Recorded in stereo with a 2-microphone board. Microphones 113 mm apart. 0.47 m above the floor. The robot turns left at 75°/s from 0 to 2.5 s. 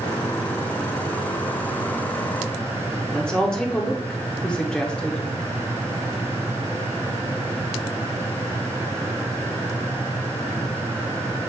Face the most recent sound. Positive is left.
turn(degrees=10)  # may be behind; listen again after turning